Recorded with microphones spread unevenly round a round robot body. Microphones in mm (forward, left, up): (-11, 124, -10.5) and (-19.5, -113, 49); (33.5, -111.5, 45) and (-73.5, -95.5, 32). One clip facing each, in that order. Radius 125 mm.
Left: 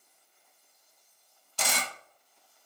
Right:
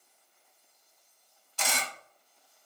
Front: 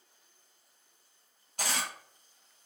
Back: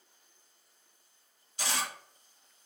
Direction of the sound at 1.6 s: 45° left.